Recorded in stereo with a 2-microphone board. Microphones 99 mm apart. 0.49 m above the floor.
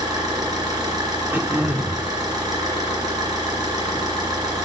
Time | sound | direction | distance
0.0 | an engine running | 50° right (ahead or behind) | 2.5 m
1.3 | throat clearing | 20° right (ahead or behind) | 0.8 m